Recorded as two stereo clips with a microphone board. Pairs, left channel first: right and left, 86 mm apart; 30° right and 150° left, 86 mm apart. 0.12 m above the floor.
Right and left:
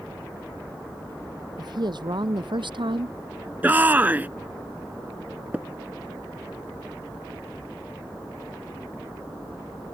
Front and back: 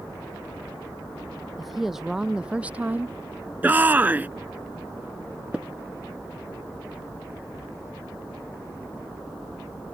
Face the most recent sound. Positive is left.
turn(degrees=100)